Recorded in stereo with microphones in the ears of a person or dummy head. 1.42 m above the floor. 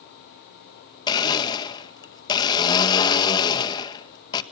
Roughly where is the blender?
Left.